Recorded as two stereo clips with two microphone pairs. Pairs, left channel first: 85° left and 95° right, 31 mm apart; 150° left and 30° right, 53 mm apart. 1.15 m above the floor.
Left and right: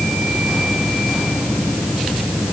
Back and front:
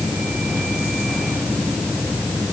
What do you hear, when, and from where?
Only background noise.